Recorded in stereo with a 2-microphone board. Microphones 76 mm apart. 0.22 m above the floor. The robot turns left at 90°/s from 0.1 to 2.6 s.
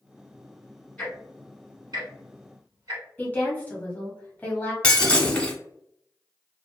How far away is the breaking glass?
About 0.9 m.